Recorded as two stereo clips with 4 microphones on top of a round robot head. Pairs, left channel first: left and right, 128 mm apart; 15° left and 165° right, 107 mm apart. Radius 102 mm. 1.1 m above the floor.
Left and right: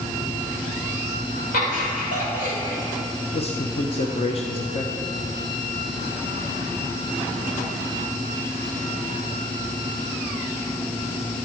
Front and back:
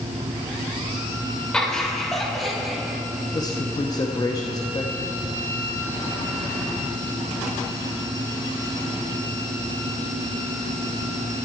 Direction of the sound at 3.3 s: 60° left.